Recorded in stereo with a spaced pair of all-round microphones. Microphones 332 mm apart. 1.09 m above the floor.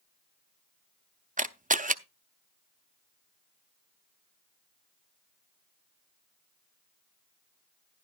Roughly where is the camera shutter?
Right.